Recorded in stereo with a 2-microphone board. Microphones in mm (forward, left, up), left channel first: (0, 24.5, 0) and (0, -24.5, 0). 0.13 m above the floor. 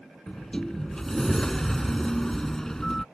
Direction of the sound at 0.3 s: 10° left (ahead or behind).